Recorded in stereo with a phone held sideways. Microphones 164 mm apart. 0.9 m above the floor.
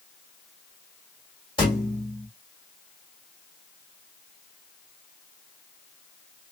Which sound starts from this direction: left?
A thud, at 1.6 s.